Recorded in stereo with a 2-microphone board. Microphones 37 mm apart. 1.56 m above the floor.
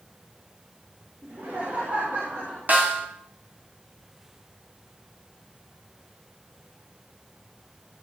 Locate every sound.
1.2 s laughter: 70° right (ahead or behind), 4 m; by 2.6 s 65° right (ahead or behind), 3.5 m
2.7 s a snare drum: 50° right (ahead or behind), 2.5 m